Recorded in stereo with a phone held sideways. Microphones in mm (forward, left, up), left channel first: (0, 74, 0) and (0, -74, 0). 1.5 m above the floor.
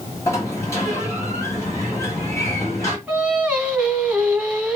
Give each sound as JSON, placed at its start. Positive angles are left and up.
{"t": 0.3, "sound": "a sliding door", "side_deg": 20, "distance_m": 1.4}
{"t": 3.1, "sound": "singing", "side_deg": -5, "distance_m": 1.8}